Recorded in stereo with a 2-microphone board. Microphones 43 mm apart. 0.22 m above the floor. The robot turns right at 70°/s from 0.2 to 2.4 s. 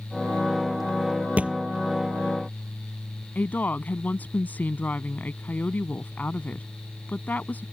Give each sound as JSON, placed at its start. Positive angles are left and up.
{"t": 1.4, "sound": "a thud", "side_deg": -35}
{"t": 3.4, "sound": "a woman speaking", "side_deg": 45}